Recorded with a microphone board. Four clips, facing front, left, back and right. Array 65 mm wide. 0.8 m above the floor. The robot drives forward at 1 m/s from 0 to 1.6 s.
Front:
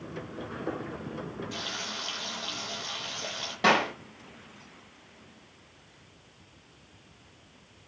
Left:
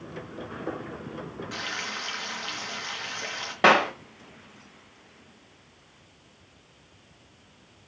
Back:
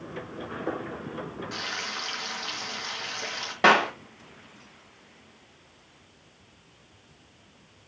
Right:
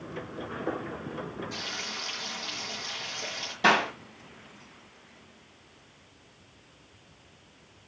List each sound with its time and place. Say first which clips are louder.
1.5 s frying: left 4 dB, back 3 dB; 130° left, 4 m
3.6 s a clap: left 4 dB, back 4 dB; 120° left, 3.5 m